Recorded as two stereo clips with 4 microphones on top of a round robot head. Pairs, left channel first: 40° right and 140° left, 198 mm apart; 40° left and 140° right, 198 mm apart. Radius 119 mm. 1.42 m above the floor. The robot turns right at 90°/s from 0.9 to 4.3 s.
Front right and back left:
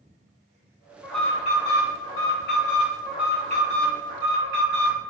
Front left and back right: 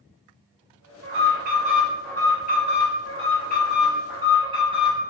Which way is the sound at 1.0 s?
140° right.